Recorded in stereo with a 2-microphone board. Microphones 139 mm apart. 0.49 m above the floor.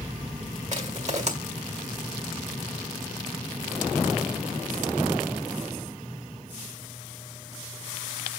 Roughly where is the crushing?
Right.